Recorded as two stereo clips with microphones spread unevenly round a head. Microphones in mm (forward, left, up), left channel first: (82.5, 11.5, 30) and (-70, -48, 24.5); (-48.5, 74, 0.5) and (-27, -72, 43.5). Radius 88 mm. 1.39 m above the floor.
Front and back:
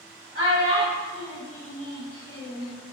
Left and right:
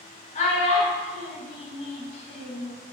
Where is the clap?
No clap in this recording.